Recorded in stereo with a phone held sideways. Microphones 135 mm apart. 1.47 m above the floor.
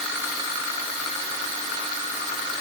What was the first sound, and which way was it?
Only background noise.